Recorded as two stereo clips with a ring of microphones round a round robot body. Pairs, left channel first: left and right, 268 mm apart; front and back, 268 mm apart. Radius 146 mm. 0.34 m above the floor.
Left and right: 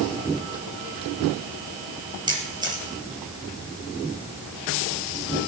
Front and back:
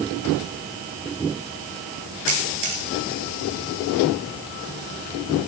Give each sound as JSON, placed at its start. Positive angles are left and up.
{"t": 2.3, "sound": "a camera shutter", "azimuth_deg": -165, "distance_m": 3.5}